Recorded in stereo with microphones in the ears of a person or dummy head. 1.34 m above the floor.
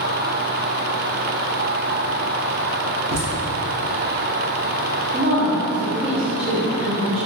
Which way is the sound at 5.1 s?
30° right (ahead or behind).